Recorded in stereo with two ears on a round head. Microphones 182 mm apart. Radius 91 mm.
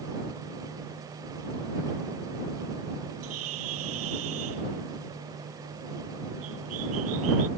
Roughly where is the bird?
Right.